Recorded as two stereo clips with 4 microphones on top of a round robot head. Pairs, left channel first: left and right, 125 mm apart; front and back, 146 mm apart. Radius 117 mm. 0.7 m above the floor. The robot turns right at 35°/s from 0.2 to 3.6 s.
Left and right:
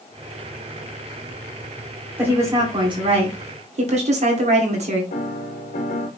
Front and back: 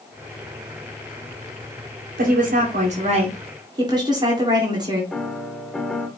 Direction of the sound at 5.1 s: 90° left.